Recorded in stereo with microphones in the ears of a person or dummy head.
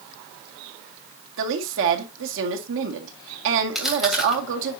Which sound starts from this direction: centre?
Chewing, at 3.8 s.